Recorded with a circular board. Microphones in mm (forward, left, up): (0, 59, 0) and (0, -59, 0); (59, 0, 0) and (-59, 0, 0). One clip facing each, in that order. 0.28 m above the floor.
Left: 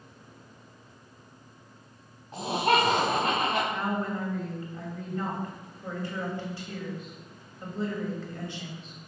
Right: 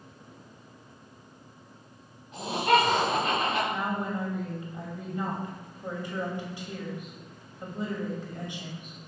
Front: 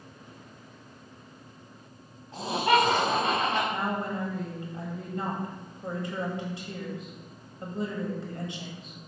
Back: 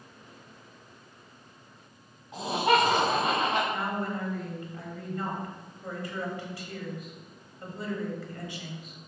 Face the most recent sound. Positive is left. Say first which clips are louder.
# left 1 dB, front 1 dB
turn(degrees=-35)